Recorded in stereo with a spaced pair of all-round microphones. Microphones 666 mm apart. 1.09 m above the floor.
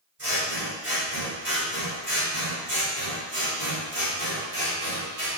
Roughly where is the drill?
No drill in this recording.